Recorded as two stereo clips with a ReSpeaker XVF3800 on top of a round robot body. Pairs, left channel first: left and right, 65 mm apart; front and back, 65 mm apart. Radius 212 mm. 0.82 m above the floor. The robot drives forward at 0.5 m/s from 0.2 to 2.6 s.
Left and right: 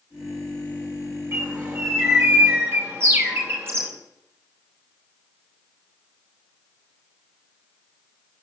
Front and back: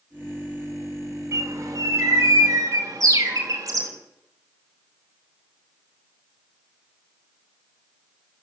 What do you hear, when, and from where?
1.3 s a bird: 140° right, 4.5 m; by 3.9 s 145° right, 5 m